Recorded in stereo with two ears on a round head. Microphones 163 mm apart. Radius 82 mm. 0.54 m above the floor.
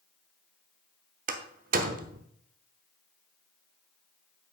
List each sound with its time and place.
1.3 s a door slam: 50° right (ahead or behind), 1.0 m